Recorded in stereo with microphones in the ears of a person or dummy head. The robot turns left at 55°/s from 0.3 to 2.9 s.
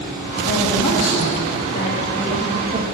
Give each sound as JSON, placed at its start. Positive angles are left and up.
{"t": 0.5, "sound": "a woman speaking", "azimuth_deg": 110, "distance_m": 2.0}